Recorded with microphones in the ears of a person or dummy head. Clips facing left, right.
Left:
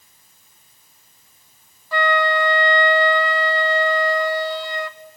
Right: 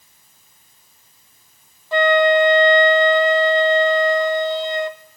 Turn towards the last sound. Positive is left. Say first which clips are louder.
# right 6 dB
turn(degrees=-25)  # may be behind; listen again after turning